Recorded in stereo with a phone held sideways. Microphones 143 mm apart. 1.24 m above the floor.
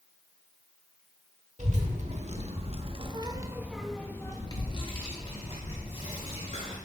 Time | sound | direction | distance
1.6 | a child speaking | 55° right (ahead or behind) | 1.4 m